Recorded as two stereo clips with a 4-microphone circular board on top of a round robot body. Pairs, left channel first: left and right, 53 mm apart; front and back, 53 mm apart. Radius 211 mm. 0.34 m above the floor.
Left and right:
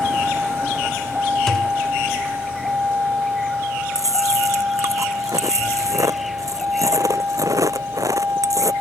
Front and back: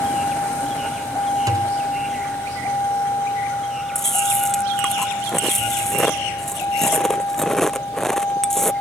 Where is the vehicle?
25° right; by 8.8 s 35° right.